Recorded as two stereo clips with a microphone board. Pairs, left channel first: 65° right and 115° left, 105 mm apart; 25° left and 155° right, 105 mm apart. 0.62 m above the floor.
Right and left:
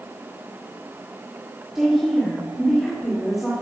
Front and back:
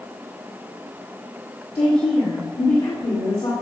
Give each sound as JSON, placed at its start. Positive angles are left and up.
{"t": 1.8, "sound": "a woman speaking", "azimuth_deg": 25, "distance_m": 2.0}